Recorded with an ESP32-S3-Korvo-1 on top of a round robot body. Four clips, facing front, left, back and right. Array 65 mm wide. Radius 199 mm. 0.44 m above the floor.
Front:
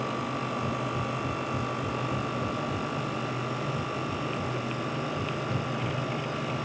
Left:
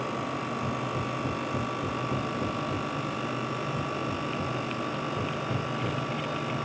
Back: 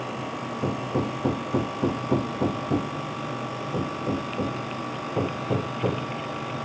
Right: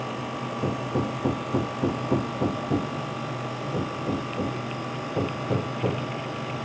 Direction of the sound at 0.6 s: 145° right.